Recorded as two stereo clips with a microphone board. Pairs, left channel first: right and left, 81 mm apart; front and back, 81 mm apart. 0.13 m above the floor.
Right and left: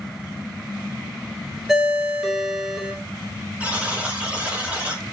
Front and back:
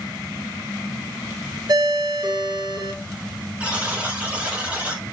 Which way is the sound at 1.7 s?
170° left.